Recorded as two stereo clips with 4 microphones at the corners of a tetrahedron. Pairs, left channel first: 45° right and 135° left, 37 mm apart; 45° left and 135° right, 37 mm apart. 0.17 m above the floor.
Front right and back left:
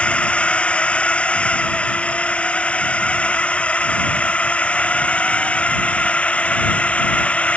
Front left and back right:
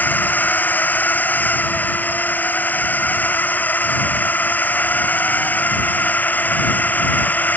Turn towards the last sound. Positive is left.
turn(degrees=5)